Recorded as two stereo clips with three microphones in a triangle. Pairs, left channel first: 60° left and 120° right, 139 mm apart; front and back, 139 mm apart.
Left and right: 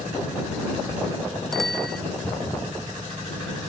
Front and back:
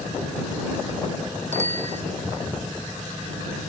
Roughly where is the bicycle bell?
Behind left.